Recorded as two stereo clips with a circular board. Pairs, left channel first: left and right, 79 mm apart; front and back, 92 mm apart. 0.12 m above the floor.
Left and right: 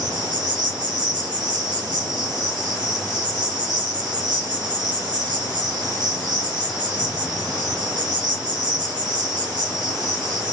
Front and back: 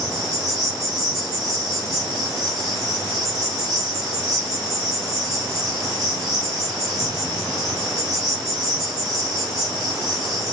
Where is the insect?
95° right, 1.2 m.